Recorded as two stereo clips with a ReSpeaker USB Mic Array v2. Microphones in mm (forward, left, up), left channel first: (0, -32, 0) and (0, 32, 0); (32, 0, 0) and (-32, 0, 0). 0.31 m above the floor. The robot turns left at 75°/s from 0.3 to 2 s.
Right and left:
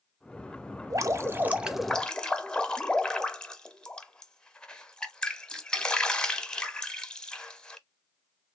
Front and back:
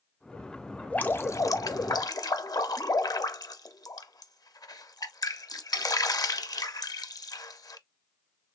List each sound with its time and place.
0.9 s dripping: 70° left, 0.6 m; by 7.8 s 10° right, 0.6 m